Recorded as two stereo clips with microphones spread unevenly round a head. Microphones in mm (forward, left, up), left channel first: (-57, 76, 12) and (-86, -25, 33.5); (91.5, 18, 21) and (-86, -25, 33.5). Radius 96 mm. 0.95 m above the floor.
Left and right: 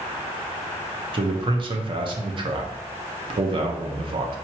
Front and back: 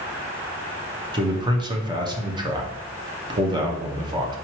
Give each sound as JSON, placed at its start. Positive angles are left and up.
{"t": 1.1, "sound": "a man speaking", "azimuth_deg": -110, "distance_m": 0.8}